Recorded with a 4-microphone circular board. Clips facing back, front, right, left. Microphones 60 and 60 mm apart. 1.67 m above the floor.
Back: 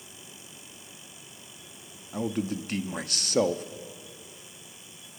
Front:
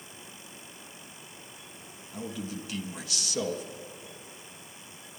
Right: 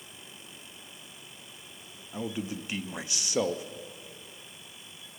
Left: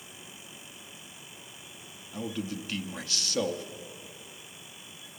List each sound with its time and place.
2.1 s a man speaking: 160° right, 0.6 m